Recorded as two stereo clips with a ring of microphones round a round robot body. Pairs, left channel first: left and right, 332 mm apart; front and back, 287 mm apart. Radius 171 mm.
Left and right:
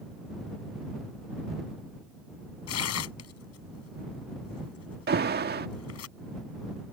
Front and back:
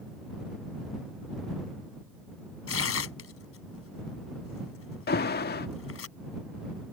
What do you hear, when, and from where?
2.7 s tearing paper: 40° left
5.1 s an alarm: 40° right